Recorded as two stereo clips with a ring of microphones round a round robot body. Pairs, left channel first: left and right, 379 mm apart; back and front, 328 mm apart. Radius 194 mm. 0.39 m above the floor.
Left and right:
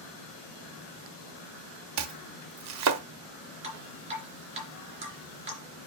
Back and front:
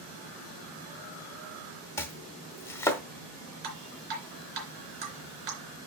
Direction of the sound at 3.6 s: 15° right.